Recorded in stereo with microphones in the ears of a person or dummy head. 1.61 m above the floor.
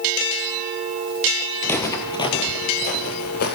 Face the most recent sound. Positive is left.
turn(degrees=55)  # may be behind; listen again after turning